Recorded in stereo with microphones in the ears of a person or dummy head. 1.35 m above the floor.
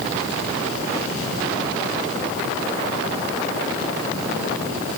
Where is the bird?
No bird in this recording.